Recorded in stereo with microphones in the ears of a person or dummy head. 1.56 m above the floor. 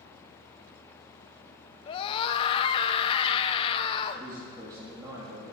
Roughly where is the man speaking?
Centre.